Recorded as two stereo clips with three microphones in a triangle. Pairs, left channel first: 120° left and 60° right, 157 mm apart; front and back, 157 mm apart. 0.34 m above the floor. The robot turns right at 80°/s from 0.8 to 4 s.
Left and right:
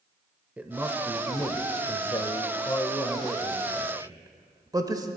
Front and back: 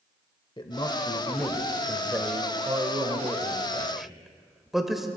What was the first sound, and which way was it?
A man speaking, 10° left.